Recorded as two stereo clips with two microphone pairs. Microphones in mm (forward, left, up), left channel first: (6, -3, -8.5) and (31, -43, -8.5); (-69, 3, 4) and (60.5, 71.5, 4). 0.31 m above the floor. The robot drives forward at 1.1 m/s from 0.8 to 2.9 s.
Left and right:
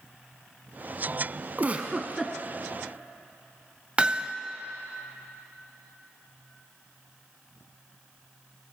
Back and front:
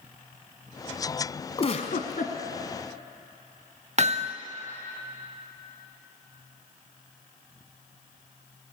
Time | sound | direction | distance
1.6 | a giggle | 105° right | 0.9 m
4.0 | hammering | straight ahead | 0.6 m